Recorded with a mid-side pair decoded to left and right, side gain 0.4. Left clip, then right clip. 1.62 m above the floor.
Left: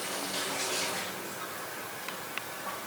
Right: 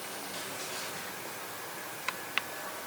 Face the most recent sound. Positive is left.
No sound to turn to.